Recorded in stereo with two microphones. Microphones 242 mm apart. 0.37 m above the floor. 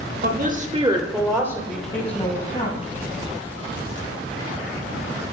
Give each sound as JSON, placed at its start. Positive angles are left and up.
{"t": 0.2, "sound": "a woman speaking", "side_deg": -40, "distance_m": 1.0}